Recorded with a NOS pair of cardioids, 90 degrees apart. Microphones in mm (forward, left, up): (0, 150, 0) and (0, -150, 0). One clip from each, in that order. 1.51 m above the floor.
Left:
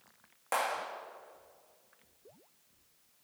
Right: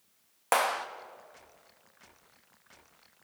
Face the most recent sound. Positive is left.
turn(degrees=-60)